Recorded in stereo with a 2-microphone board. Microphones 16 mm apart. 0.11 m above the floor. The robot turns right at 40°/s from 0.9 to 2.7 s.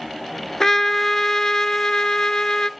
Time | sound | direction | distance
0.6 | a trumpet | 40° left | 0.5 m